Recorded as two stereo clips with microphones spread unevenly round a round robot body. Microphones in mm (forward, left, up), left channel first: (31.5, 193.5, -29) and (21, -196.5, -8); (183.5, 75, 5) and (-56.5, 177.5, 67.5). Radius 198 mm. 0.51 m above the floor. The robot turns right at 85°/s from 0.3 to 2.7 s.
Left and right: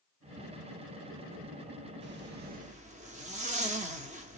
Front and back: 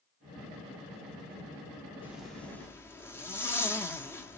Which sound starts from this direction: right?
A zipper, at 2.0 s.